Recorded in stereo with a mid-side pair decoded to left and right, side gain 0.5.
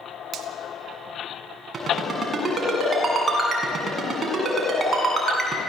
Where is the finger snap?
60° right, 1.8 m.